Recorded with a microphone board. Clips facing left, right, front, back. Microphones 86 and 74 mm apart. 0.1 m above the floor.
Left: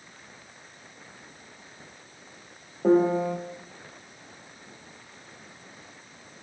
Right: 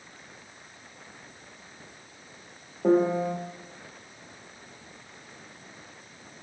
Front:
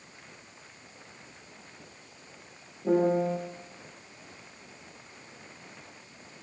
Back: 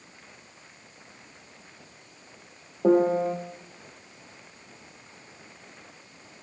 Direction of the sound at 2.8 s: 175° left.